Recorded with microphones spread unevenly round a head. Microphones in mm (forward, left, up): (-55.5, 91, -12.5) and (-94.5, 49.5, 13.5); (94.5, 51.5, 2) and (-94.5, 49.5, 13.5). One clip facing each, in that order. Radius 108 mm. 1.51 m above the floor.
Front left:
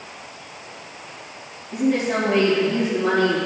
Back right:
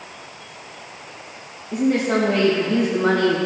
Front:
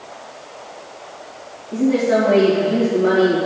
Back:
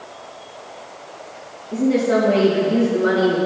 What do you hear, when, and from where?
1.7 s a woman speaking: 115° right, 1.9 m